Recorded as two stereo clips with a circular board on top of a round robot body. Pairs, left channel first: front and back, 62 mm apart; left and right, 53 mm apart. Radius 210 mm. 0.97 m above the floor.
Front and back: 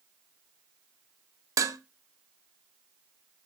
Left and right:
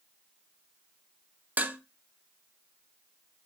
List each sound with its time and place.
1.6 s dishes clattering: 150° right, 0.5 m